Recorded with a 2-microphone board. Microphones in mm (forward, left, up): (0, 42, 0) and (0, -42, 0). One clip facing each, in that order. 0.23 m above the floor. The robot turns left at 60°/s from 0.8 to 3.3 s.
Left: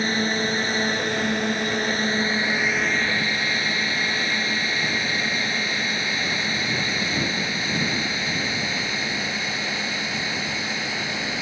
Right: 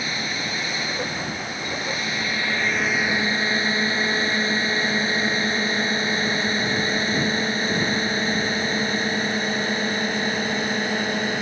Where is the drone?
45° left (ahead or behind); by 11.4 s 50° right (ahead or behind).